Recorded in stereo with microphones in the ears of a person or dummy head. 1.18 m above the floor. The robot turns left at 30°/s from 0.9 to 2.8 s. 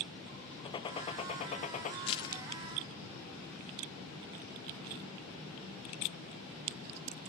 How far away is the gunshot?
About 0.7 m.